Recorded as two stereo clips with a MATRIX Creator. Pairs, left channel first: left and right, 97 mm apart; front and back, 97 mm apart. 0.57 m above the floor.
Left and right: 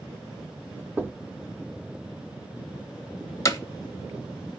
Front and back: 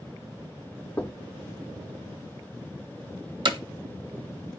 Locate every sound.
1.0 s knocking: 45° right, 0.8 m
3.5 s hammering: 145° left, 0.8 m